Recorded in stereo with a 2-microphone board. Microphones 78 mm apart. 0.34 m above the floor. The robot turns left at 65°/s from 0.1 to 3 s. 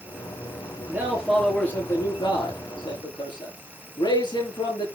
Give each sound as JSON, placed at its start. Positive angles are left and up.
{"t": 0.9, "sound": "a man speaking", "azimuth_deg": -145, "distance_m": 7.5}